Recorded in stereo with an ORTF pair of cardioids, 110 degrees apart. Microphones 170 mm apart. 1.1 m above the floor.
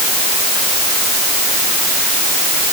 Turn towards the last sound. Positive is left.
No sound to turn to.